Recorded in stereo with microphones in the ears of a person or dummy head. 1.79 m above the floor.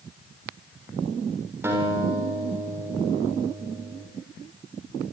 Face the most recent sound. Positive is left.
turn(degrees=-15)  # may be behind; listen again after turning